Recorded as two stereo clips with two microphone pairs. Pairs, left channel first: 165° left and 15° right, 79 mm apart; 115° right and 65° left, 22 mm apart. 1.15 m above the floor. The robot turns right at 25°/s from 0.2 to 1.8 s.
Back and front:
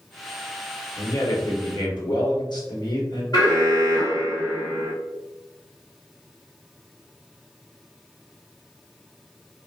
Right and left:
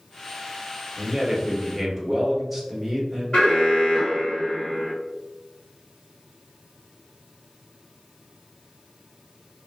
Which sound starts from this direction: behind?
An alarm, at 3.3 s.